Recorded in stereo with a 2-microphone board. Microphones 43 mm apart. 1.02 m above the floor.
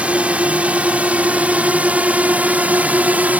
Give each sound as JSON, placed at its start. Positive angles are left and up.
{"t": 0.0, "sound": "a drone", "side_deg": -30}